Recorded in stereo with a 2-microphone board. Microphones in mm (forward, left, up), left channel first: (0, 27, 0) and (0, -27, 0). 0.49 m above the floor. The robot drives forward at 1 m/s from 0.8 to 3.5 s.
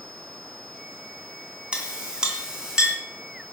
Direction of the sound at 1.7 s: 20° right (ahead or behind).